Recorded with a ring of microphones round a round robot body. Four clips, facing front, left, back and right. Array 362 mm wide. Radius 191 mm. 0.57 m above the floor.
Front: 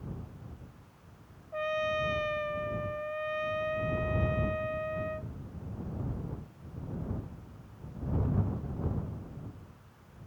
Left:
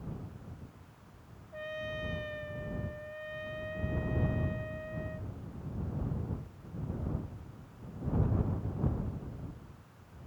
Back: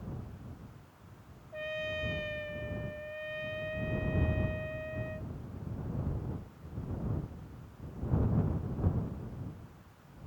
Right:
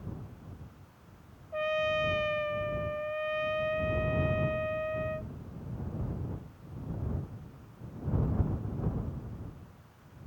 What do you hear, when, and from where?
1.5 s a trumpet: 65° right